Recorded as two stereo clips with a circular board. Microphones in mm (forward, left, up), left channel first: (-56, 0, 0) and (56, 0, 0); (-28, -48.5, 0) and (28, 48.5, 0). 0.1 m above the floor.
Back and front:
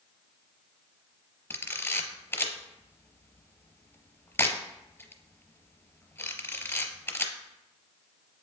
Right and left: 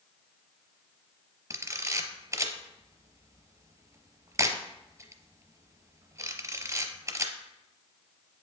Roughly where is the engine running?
I don't hear an engine running.